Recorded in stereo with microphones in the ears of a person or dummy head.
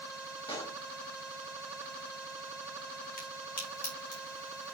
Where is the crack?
45° left (ahead or behind), 3 m.